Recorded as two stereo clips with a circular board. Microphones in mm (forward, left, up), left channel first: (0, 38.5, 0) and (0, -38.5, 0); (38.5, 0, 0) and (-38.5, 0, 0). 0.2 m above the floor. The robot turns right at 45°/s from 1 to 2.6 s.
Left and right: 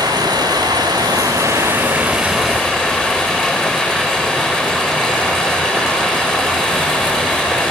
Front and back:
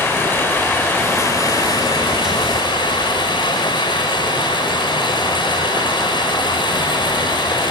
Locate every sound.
0.0 s running water: 60° right, 9 m; by 7.7 s 15° left, 9 m